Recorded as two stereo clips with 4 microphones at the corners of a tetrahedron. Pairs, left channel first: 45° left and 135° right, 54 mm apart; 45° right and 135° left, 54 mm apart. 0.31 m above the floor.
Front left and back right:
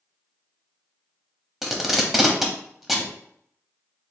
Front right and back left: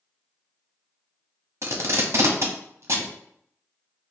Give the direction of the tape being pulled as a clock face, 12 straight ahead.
7 o'clock.